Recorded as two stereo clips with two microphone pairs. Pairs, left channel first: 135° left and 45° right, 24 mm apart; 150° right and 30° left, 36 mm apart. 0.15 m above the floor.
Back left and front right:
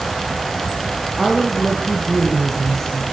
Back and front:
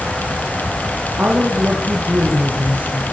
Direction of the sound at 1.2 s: 45° left.